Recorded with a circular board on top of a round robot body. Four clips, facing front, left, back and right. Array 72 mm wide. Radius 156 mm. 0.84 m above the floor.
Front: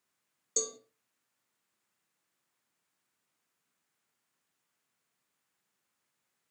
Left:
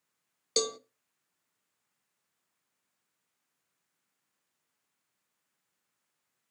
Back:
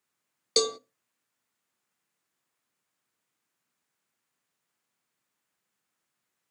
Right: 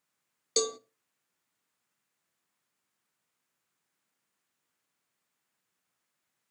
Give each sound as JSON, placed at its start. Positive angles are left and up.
{"t": 0.6, "sound": "a cowbell", "azimuth_deg": 175, "distance_m": 0.7}